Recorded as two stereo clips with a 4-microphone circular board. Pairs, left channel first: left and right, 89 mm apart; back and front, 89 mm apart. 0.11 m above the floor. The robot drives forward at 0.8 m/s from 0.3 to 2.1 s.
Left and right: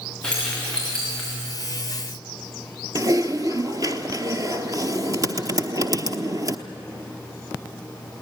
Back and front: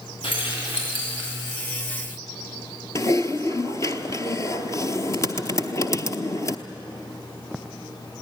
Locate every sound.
0.2 s keys jangling: 170° left, 6.5 m
3.0 s typing on a keyboard: 130° right, 0.9 m